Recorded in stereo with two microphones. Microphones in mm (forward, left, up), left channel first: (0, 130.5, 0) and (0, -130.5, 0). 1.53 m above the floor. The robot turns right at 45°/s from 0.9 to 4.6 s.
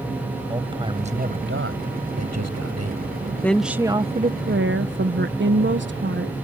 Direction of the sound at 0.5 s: 160° right.